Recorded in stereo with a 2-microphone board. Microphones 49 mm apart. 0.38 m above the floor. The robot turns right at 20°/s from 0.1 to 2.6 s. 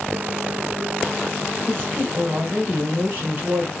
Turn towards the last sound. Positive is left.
turn(degrees=-35)  # may be behind; listen again after turning